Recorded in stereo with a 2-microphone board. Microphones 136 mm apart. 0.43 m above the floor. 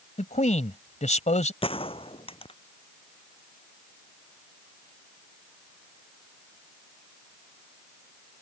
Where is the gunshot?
40° left (ahead or behind).